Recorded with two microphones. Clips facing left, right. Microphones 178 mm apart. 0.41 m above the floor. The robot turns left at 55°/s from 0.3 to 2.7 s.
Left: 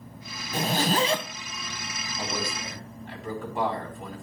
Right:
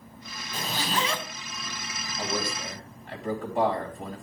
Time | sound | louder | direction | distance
0.5 | a zipper | left 6 dB | 65° left | 1.2 m
2.2 | a man speaking | right 2 dB | 15° right (ahead or behind) | 3 m